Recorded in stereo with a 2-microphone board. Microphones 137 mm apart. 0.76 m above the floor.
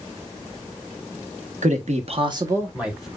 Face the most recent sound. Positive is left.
turn(degrees=0)  # may be behind; listen again after turning